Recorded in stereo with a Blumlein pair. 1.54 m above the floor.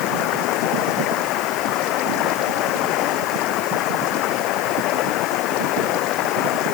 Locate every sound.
0.0 s running water: 40° left